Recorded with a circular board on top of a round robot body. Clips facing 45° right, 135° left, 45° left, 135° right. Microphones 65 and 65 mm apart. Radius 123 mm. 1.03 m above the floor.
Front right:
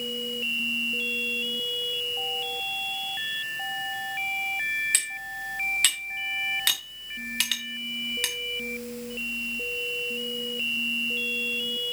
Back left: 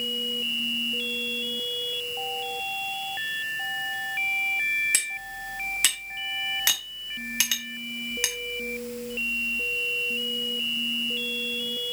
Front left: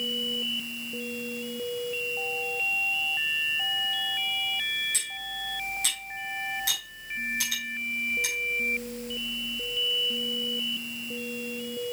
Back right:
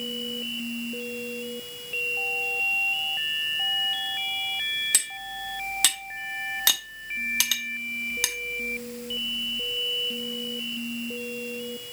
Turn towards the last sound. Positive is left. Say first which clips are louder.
# even, back right 2 dB
turn(degrees=-145)